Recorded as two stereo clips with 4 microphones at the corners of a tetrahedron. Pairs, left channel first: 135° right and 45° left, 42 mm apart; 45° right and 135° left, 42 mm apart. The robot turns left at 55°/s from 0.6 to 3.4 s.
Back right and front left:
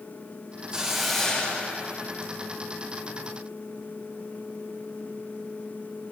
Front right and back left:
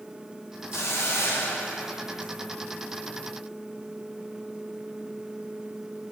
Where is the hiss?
25° right, 0.9 m; by 2.3 s 115° right, 0.9 m.